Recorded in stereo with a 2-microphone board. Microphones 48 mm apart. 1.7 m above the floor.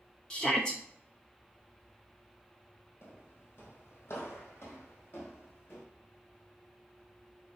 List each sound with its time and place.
0.3 s a shout: 15° left (ahead or behind), 0.6 m
3.0 s footsteps: 55° left (ahead or behind), 3 m; by 5.8 s 50° left (ahead or behind), 4 m